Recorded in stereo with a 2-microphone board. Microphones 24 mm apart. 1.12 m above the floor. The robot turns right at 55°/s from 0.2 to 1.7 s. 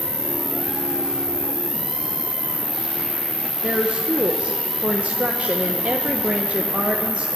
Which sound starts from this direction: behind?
An insect, at 0.0 s.